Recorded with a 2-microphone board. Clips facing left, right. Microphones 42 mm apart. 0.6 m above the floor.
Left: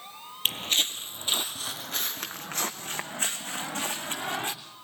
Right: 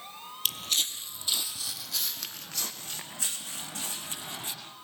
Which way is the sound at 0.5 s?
40° left (ahead or behind).